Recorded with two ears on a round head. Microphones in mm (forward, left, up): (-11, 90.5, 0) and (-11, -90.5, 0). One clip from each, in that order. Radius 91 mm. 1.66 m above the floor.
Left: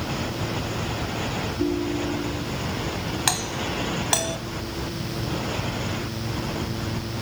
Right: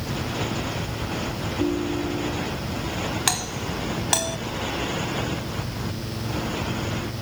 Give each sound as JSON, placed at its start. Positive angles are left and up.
{"t": 1.6, "sound": "a ringtone", "side_deg": 5}
{"t": 3.3, "sound": "a doorbell", "side_deg": 0}